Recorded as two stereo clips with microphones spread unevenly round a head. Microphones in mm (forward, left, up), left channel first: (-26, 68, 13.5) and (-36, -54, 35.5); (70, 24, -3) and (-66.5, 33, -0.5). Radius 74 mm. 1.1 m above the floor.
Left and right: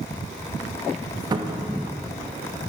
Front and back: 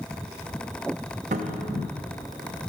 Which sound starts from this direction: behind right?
A cupboard door, at 1.3 s.